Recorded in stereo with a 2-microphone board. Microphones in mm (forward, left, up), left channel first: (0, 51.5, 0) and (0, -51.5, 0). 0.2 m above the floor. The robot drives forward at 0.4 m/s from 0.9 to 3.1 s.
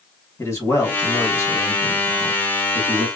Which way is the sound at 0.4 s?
30° left (ahead or behind).